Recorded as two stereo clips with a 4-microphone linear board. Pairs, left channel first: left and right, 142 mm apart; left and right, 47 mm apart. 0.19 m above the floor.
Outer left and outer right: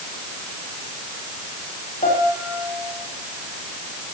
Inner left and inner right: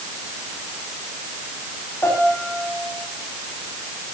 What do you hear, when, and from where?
2.0 s a piano: 75° left (ahead or behind), 6 m